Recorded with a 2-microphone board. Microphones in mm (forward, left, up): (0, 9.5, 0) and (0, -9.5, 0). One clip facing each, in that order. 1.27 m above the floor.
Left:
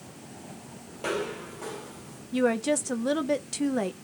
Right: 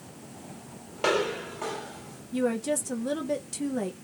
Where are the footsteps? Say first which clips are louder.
Right 5 dB; 30° right (ahead or behind), 1.6 m; by 2.2 s 5° right (ahead or behind), 1.5 m.